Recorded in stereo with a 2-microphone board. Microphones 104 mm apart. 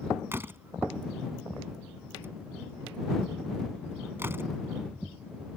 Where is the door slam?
20° right (ahead or behind).